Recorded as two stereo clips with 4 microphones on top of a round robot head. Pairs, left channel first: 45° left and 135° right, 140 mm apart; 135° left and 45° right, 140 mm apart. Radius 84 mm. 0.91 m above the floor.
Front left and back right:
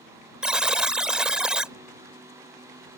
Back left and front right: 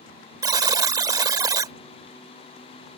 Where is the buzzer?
55° right.